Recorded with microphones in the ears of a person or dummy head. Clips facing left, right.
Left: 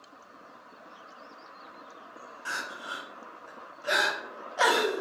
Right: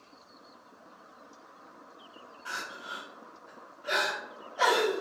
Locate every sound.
2.5 s crying: 50° left (ahead or behind), 0.6 m